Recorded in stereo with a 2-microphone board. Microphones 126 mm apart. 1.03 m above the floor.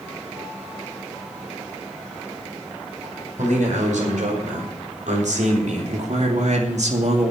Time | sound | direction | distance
3.4 | a man speaking | 75° right (ahead or behind) | 5 m